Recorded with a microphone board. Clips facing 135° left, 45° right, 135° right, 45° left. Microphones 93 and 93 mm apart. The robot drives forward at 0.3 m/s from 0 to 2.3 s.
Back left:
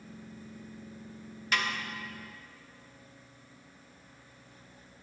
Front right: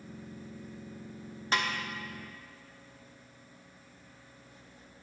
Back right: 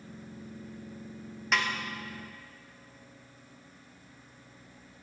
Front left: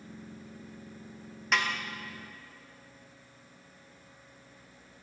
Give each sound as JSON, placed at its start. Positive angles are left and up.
{"t": 1.5, "sound": "a snare drum", "azimuth_deg": -45, "distance_m": 1.2}